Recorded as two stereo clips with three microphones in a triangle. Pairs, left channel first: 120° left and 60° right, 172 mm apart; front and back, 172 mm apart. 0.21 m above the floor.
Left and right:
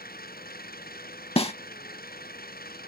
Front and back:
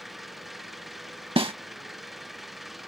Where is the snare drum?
145° left.